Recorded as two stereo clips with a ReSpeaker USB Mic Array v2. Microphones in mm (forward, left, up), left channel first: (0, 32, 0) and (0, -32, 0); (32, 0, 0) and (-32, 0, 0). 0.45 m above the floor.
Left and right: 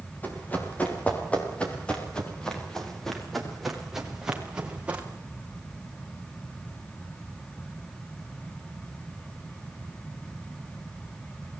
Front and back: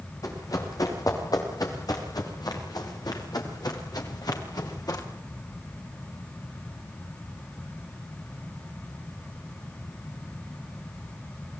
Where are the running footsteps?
25° left, 9.5 m; by 5.1 s 20° right, 5.5 m.